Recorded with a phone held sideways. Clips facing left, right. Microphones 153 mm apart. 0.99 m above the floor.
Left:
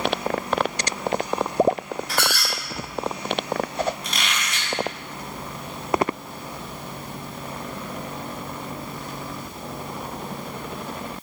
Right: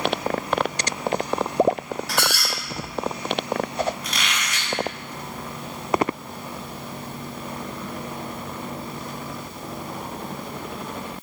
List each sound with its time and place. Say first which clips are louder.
2.1 s a squeak: even; 80° right, 1.2 m
4.0 s a squeak: even; 25° left (ahead or behind), 0.8 m